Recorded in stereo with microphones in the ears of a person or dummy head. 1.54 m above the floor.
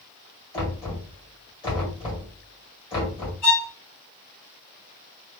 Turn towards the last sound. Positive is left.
turn(degrees=20)  # may be behind; listen again after turning